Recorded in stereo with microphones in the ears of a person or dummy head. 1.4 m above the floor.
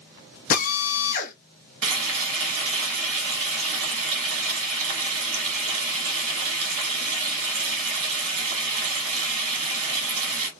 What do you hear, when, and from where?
0.5 s a drill: 50° left (ahead or behind), 1.0 m
1.8 s frying: 80° right, 1.7 m